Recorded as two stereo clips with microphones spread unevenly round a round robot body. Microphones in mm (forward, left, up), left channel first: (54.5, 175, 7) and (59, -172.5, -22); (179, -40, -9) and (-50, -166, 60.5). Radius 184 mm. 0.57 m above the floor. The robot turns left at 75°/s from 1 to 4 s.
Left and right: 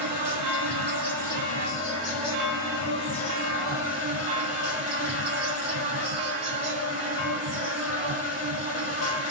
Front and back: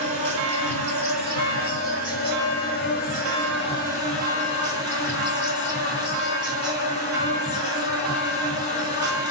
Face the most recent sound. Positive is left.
turn(degrees=-30)